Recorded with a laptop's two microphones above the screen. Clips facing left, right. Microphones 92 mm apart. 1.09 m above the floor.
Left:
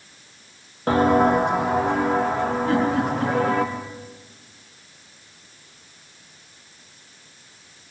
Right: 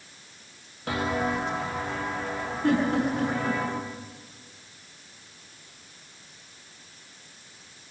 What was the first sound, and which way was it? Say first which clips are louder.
Footsteps: left 11 dB; 40° left (ahead or behind).